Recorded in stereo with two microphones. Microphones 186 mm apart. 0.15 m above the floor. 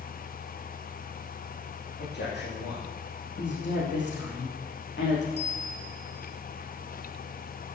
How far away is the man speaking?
About 7 m.